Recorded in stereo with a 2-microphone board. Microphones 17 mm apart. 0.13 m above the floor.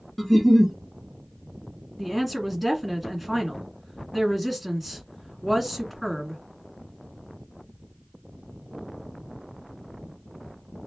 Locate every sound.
0.2 s a giggle: 15° left (ahead or behind), 1.1 m
2.0 s a woman speaking: 5° right (ahead or behind), 1.3 m